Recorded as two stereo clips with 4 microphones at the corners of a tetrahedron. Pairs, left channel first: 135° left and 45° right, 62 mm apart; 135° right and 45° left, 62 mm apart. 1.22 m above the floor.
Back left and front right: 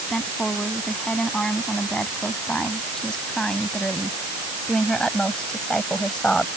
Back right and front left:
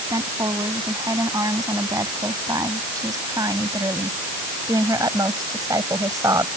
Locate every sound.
0.1 s a woman speaking: 55° left; by 6.5 s 60° left